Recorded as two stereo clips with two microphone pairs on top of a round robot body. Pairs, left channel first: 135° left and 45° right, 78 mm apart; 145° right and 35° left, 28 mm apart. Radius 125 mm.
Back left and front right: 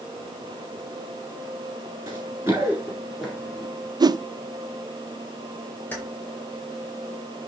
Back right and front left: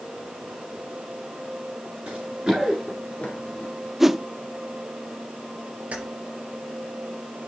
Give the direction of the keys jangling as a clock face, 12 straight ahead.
10 o'clock.